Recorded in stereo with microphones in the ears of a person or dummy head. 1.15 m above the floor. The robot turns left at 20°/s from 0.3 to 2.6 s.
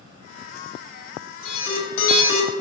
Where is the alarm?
75° left (ahead or behind), 1.2 m; by 2.6 s 65° left (ahead or behind), 1.2 m.